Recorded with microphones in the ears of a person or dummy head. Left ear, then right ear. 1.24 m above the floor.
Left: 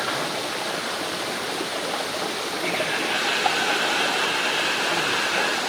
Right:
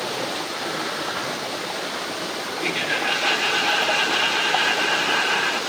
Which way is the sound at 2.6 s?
80° right.